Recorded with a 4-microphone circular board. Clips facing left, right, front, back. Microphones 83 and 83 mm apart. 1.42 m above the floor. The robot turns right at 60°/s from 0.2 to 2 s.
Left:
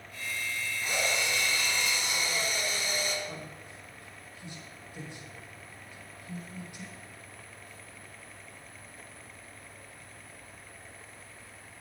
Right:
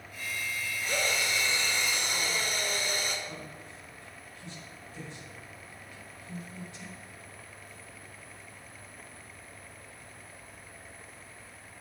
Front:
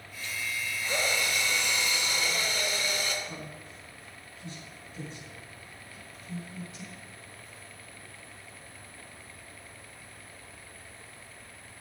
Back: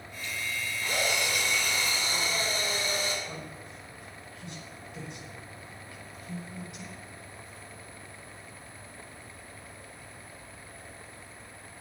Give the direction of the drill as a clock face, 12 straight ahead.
7 o'clock.